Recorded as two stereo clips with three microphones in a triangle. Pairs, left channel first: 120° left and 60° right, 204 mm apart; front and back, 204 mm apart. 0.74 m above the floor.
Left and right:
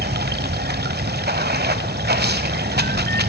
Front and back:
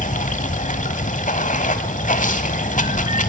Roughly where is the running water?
Ahead right.